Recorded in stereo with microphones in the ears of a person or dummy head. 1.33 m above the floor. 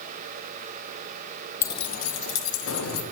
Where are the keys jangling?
15° left (ahead or behind), 0.5 m; by 3.0 s 80° left, 1.5 m.